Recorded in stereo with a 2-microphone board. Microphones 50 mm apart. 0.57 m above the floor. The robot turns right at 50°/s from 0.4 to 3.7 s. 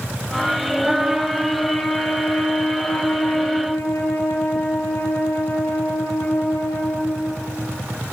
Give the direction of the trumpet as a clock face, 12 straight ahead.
1 o'clock.